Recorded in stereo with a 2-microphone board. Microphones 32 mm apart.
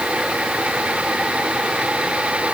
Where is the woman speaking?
I don't hear a woman speaking.